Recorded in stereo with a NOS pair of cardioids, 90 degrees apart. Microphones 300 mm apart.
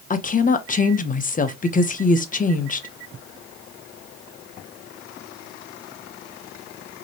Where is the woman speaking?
25° left, 0.9 m.